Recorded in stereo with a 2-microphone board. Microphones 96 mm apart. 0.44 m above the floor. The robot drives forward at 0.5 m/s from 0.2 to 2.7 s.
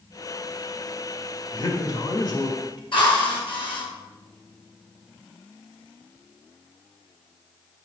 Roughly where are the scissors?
I don't hear scissors.